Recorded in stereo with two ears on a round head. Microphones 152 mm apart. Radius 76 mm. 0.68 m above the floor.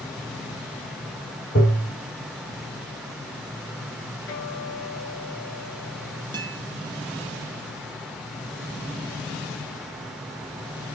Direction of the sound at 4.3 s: 75° left (ahead or behind).